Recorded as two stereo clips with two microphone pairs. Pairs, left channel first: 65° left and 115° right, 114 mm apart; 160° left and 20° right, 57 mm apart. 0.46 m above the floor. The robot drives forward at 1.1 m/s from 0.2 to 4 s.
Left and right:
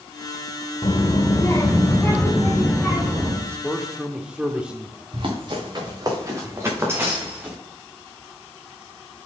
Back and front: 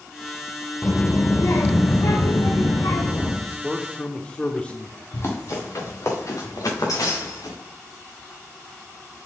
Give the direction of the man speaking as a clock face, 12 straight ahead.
12 o'clock.